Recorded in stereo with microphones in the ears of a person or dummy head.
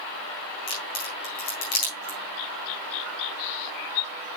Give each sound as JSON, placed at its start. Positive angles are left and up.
{"t": 0.7, "sound": "a crack", "side_deg": 45, "distance_m": 6.0}